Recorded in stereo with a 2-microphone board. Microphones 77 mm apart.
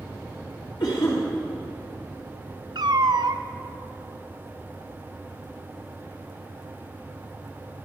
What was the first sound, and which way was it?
A cough, 70° left (ahead or behind).